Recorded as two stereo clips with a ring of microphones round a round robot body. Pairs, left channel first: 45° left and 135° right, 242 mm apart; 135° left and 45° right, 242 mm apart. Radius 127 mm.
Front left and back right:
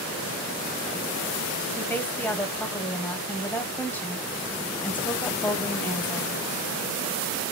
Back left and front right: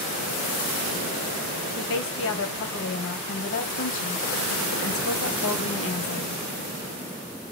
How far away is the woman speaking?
About 1.6 m.